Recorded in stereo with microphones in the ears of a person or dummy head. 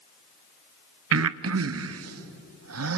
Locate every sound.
1.1 s breathing: 75° right (ahead or behind), 0.8 m